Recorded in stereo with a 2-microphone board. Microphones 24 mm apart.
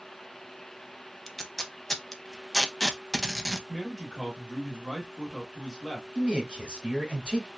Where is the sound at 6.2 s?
40° right (ahead or behind), 1.2 m.